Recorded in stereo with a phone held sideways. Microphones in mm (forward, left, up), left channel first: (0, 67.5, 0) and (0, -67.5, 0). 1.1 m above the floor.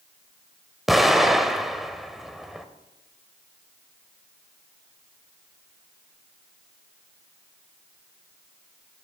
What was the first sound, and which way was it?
An explosion, centre (ahead or behind).